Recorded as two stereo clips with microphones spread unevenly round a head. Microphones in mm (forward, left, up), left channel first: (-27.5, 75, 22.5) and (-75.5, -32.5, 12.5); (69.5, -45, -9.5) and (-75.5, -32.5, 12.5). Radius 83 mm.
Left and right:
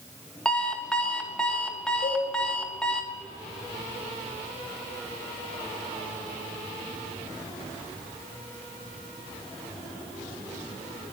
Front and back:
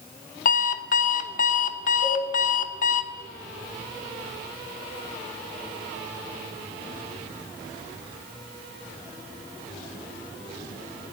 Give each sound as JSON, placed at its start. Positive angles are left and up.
{"t": 0.5, "sound": "an alarm clock", "azimuth_deg": -10, "distance_m": 1.2}
{"t": 2.0, "sound": "a cowbell", "azimuth_deg": 15, "distance_m": 6.0}